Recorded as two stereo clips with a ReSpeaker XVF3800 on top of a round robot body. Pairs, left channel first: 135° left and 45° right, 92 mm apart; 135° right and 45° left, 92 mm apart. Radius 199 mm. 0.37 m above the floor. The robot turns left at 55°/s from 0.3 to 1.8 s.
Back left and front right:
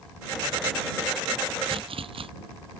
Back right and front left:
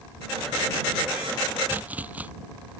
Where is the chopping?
20° right; by 2.3 s 30° right.